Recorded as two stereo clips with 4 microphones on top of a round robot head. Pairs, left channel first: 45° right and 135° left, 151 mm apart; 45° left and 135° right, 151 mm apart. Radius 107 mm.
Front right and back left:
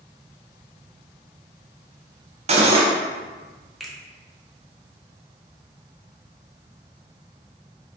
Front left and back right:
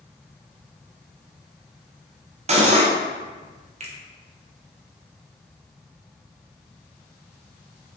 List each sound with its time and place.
2.5 s cutlery clinking: straight behind, 0.7 m
3.8 s a finger snap: 135° right, 0.9 m